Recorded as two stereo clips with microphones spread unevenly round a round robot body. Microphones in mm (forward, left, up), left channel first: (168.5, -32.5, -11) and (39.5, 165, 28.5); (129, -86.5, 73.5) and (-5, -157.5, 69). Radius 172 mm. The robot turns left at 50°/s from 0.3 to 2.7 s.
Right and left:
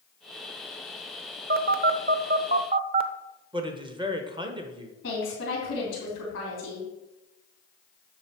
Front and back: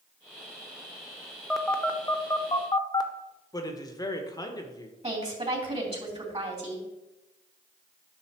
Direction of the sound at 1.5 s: 120° left.